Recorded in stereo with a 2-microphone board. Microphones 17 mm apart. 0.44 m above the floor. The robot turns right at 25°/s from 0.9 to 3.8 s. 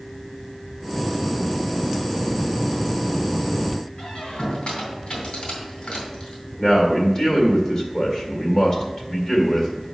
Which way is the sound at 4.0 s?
70° left (ahead or behind).